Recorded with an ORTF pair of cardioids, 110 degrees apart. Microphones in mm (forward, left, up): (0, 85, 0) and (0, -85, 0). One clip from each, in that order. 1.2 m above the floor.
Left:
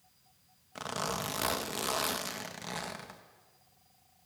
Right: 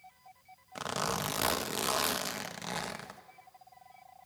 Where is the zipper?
15° right, 1.6 m.